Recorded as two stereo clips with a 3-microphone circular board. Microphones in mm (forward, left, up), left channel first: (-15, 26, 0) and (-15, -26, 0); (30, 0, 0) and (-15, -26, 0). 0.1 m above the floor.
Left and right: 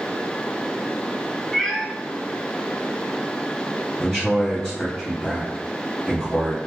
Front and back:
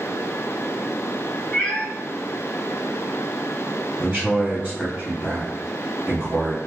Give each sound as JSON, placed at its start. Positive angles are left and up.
{"t": 1.5, "sound": "a cat meowing", "azimuth_deg": 30, "distance_m": 0.7}
{"t": 4.0, "sound": "a man speaking", "azimuth_deg": 160, "distance_m": 1.6}